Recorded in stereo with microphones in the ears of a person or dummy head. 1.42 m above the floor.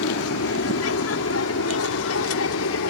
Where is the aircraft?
65° left (ahead or behind); by 2.9 s 75° left (ahead or behind).